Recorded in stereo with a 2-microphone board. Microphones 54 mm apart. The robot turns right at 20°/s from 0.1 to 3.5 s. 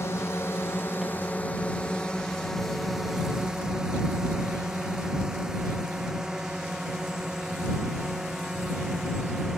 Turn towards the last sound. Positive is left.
turn(degrees=-10)  # may be behind; listen again after turning